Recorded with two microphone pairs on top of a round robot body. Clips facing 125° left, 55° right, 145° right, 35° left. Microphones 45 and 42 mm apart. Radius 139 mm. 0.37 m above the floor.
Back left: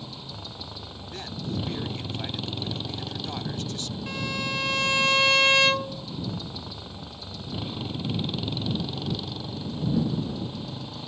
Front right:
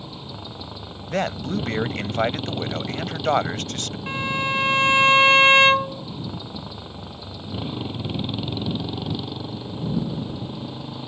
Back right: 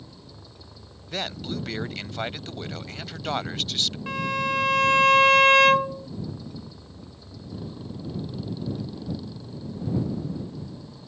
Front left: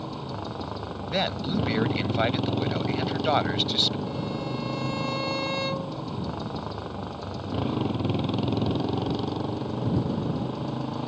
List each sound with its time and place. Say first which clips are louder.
0.0 s a motorcycle: front right 3 dB, front left 13 dB; 20° left
1.1 s a man speaking: front right 10 dB, front left 4 dB; 35° right
4.1 s a violin: front right 7 dB, back right 5 dB; 120° right